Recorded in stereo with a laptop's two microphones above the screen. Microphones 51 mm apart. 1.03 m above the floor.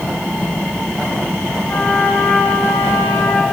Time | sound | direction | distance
1.7 | a trumpet | 35° left (ahead or behind) | 7 m